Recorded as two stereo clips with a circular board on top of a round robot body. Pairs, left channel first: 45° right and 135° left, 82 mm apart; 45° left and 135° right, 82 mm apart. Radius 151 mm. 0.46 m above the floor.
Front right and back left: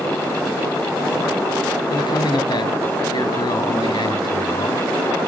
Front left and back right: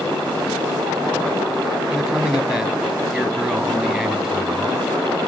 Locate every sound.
1.9 s a man speaking: 45° right, 2 m